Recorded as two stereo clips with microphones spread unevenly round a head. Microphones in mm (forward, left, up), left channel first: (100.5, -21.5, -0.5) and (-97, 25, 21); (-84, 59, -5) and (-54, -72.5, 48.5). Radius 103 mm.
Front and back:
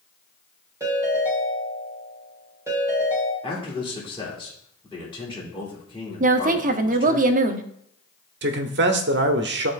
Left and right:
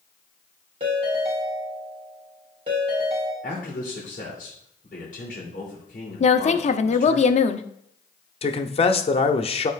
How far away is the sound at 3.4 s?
About 2 m.